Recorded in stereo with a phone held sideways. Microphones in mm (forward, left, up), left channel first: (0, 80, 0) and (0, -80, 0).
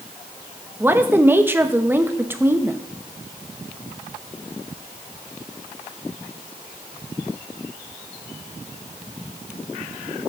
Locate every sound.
0.8 s a woman speaking: 15° right (ahead or behind), 1.0 m